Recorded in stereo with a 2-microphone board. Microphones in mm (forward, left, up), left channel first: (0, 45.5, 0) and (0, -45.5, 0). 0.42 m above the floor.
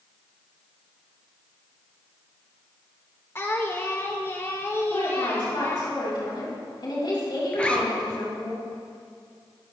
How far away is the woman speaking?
About 4.5 m.